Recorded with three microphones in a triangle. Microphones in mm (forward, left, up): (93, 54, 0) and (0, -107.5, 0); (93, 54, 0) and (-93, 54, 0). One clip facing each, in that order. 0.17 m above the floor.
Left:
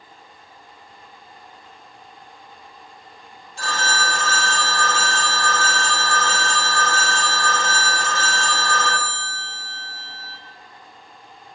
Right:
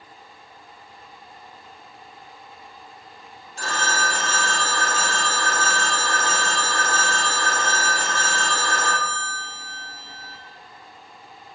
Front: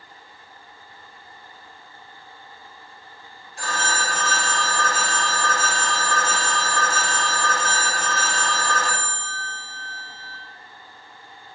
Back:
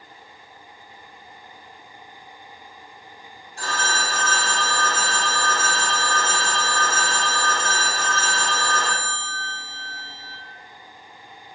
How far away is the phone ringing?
About 1.3 m.